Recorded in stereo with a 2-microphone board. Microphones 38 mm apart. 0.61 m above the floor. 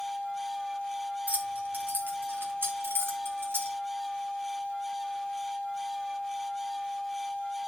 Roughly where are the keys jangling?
Right.